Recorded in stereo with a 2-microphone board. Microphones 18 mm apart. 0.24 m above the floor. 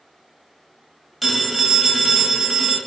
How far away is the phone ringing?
About 0.8 m.